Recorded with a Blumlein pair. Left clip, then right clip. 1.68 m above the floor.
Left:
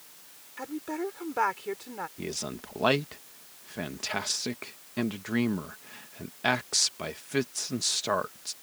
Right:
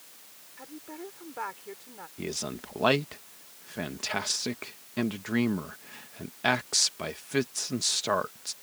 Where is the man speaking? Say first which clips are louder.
Right 1 dB; straight ahead.